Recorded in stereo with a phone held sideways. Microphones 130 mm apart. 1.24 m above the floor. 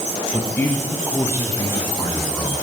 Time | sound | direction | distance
0.3 | a man speaking | 15° left (ahead or behind) | 1.4 m